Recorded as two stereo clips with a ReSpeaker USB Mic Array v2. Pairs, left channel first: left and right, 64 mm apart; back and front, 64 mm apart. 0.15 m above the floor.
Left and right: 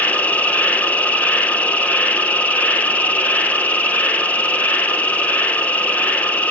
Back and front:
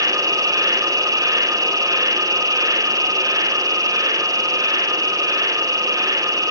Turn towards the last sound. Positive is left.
turn(degrees=25)